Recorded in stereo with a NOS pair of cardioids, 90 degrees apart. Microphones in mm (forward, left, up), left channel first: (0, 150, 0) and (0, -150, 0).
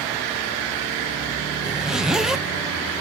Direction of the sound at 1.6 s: Straight ahead.